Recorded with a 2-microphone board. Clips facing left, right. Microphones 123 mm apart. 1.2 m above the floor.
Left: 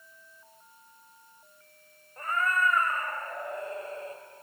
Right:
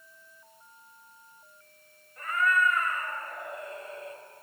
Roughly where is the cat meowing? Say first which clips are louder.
Right 2 dB; left.